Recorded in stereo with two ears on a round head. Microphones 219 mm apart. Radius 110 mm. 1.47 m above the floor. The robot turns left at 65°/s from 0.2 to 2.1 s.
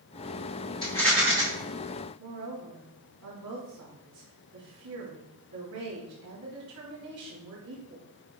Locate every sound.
0.8 s a rattle: 20° left, 4.5 m; by 1.4 s 20° right, 4.5 m
2.2 s a woman speaking: 70° right (ahead or behind), 4 m